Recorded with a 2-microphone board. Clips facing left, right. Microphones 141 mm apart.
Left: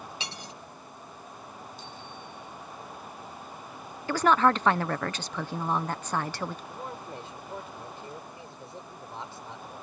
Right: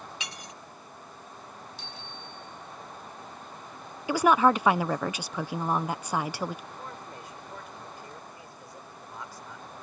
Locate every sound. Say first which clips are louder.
0.2 s cutlery clinking: left 2 dB; 30° left (ahead or behind)
1.8 s a bicycle bell: left 1 dB; 80° right
4.1 s a woman speaking: right 1 dB; 10° right (ahead or behind)
6.7 s a man speaking: left 3 dB; 25° left (ahead or behind)